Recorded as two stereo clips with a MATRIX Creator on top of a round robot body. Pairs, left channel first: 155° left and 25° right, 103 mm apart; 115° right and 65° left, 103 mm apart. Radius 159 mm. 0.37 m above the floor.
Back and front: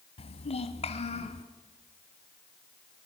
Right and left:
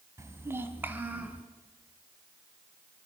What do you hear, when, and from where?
0.2 s a child speaking: 130° left, 1.9 m; by 1.4 s 145° left, 3 m